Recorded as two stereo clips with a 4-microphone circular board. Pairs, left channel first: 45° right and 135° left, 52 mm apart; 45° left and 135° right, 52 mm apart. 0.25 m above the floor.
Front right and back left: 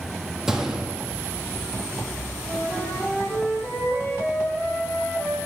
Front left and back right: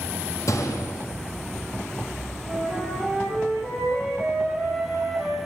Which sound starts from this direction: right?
A flute, at 2.4 s.